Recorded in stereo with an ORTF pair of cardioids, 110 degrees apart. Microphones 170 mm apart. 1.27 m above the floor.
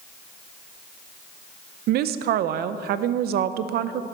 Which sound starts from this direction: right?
A woman speaking, at 1.9 s.